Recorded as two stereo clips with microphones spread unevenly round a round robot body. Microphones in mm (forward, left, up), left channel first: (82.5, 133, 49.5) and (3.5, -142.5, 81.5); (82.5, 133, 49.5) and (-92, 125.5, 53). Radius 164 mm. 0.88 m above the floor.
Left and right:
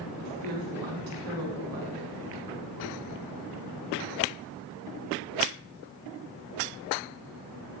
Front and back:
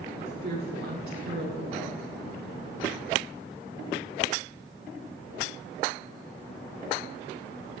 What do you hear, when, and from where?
0.2 s a woman speaking: 130° right, 9.5 m